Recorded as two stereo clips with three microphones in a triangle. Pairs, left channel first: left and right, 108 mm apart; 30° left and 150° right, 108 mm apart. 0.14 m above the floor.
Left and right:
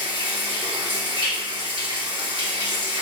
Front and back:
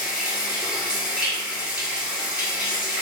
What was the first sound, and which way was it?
Running water, 70° right.